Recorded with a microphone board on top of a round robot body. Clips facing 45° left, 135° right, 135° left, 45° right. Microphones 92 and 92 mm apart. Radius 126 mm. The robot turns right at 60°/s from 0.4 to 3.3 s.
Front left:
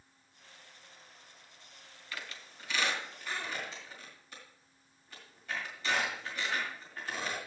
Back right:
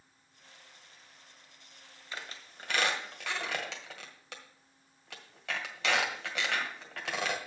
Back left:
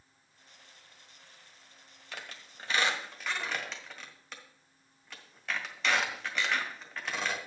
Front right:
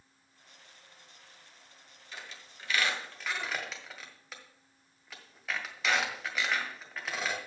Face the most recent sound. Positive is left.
turn(degrees=-130)